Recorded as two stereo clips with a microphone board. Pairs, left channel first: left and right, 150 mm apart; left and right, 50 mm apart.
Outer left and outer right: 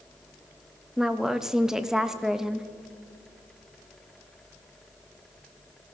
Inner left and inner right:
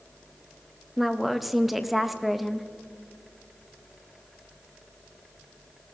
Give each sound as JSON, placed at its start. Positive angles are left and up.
{"t": 1.0, "sound": "a woman speaking", "side_deg": -5, "distance_m": 0.6}